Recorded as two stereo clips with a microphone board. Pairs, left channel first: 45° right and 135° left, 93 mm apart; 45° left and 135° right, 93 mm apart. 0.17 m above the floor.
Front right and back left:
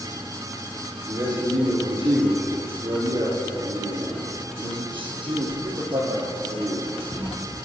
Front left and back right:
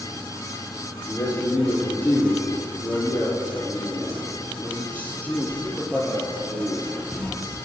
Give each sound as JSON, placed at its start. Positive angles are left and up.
{"t": 1.1, "sound": "a man speaking", "azimuth_deg": 110, "distance_m": 7.0}